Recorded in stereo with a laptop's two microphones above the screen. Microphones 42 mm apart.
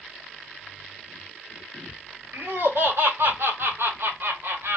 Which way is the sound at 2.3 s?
75° right (ahead or behind).